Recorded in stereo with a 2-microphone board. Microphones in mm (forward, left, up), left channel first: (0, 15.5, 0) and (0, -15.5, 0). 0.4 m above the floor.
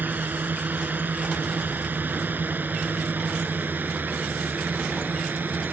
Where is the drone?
75° right (ahead or behind).